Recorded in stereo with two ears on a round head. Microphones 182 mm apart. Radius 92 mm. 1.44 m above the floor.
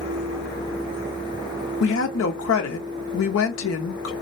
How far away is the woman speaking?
About 0.6 m.